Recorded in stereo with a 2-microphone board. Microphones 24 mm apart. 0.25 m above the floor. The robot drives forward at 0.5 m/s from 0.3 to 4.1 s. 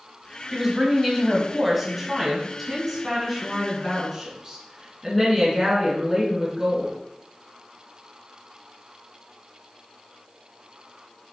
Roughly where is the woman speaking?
Centre.